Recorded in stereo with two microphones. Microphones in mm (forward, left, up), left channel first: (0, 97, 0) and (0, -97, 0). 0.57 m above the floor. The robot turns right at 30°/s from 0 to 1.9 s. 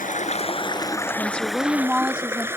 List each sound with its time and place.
0.0 s running water: 135° left; by 2.6 s 170° right
1.2 s a woman speaking: 10° left (ahead or behind); by 2.5 s 5° right (ahead or behind)